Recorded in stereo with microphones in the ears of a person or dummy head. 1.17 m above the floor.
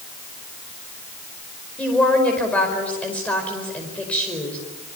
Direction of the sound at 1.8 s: 5° left (ahead or behind).